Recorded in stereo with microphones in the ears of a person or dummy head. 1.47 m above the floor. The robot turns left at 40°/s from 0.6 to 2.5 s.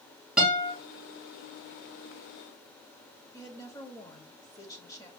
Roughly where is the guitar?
Centre.